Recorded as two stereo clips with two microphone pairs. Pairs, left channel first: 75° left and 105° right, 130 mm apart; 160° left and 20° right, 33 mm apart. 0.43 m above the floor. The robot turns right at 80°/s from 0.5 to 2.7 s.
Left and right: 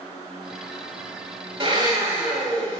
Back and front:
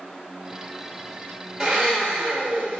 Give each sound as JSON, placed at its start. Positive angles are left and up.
{"t": 1.6, "sound": "a blender", "azimuth_deg": -80, "distance_m": 1.0}